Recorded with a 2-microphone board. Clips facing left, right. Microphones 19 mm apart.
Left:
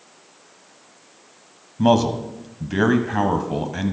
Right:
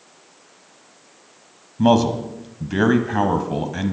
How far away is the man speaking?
About 1.3 m.